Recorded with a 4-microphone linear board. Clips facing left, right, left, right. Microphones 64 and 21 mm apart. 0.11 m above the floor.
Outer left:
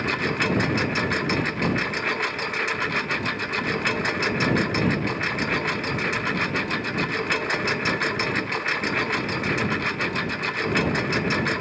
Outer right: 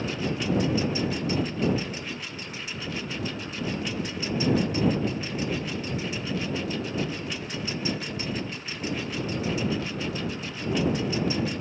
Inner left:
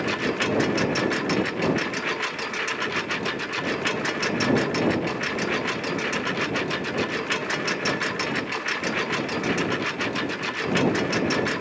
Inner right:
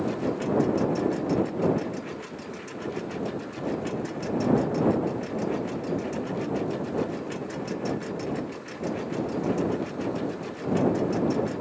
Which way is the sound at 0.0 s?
65° left (ahead or behind).